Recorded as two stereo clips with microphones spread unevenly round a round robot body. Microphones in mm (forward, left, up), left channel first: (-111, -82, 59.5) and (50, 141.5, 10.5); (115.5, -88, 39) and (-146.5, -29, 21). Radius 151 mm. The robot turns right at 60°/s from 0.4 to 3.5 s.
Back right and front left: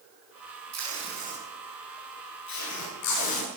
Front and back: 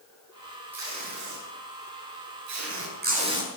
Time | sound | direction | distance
0.7 | tape being pulled | 85° left | 5.5 m